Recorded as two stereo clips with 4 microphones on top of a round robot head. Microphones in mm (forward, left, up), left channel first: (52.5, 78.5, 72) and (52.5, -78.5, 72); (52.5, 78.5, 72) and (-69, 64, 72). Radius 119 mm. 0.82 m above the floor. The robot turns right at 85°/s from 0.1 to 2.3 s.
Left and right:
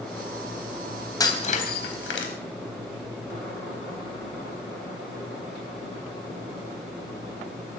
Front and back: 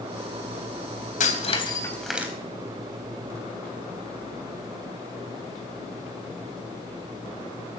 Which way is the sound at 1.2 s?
20° left.